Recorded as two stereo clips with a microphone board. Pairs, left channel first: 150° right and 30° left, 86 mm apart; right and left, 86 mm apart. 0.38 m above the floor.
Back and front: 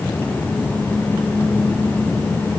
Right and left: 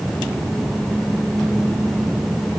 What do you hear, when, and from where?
Only background noise.